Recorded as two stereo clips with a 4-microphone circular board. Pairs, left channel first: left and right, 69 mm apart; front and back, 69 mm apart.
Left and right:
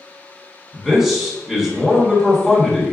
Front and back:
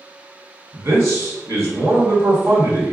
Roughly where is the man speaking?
Behind.